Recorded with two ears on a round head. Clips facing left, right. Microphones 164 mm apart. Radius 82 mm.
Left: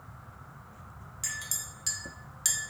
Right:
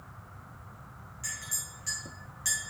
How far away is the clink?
About 0.7 m.